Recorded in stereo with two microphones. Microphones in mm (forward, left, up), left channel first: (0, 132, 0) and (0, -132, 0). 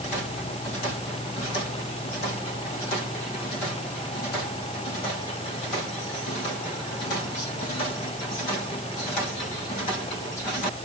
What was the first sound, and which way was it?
Only background noise.